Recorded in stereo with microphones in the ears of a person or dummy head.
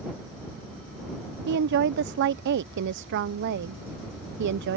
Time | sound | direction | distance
1.5 | a woman speaking | 55° right (ahead or behind) | ?